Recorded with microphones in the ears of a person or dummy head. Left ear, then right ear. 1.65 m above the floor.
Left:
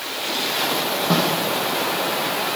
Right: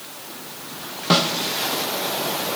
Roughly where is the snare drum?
Right.